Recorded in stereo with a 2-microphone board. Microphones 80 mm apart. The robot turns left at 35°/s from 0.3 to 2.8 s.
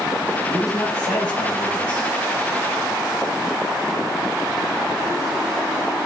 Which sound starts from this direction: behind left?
A man speaking, at 0.5 s.